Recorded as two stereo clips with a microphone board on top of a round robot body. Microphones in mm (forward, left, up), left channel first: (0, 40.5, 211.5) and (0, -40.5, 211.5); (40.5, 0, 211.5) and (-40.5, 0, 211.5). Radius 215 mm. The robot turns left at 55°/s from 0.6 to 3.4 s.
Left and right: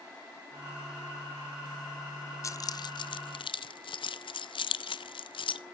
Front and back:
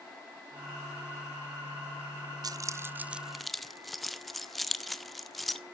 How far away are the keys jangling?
About 0.5 m.